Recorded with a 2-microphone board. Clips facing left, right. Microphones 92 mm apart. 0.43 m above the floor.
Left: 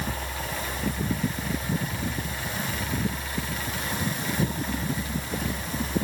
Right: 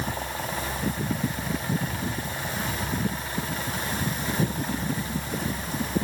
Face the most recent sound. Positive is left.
No sound to turn to.